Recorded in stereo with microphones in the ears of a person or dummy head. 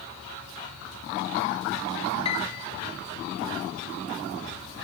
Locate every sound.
2.2 s a piano: 30° left (ahead or behind), 2.5 m